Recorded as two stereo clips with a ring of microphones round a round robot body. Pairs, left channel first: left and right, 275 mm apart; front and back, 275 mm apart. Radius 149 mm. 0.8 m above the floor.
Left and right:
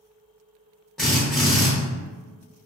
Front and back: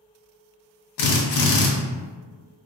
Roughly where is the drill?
Ahead.